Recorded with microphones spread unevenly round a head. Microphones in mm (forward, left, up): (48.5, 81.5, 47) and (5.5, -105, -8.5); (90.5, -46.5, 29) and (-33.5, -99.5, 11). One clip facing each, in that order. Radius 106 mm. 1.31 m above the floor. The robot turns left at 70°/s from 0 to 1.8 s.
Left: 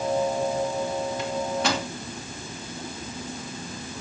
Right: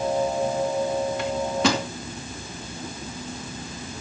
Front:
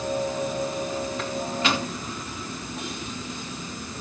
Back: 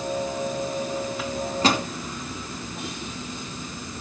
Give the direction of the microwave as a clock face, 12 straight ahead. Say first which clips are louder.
Right 3 dB, back 3 dB; 2 o'clock.